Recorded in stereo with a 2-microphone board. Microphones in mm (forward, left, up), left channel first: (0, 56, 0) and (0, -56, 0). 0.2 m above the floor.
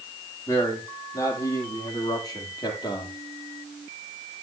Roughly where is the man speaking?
Left.